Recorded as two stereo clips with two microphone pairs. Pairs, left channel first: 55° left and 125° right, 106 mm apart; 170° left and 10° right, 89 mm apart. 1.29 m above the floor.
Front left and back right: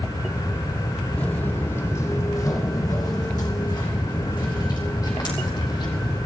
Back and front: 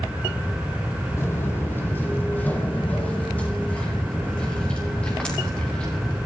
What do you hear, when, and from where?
1.2 s footsteps: 120° left, 1.7 m; by 6.2 s 90° left, 5 m